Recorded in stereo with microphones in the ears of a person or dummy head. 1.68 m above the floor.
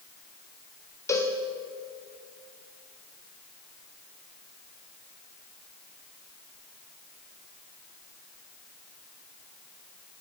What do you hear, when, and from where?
1.1 s a cowbell: 20° left (ahead or behind), 1.4 m